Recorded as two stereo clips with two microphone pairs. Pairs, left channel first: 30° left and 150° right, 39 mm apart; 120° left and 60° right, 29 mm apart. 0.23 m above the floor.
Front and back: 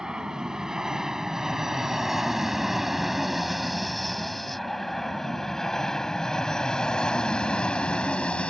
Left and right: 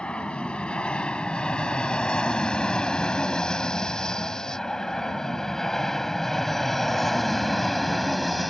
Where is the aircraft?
150° left; by 8.5 s 30° left.